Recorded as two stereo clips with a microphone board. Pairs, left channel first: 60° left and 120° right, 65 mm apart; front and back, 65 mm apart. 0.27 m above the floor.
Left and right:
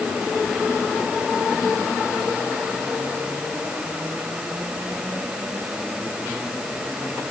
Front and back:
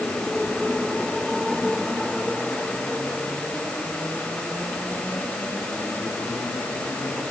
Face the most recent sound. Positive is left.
No sound to turn to.